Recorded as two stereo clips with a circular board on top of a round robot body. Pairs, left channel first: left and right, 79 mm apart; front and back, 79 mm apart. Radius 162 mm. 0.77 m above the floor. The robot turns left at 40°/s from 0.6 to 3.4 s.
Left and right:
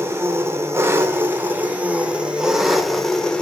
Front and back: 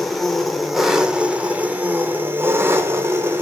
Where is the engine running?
85° right, 0.8 m; by 3.4 s 160° left, 0.8 m.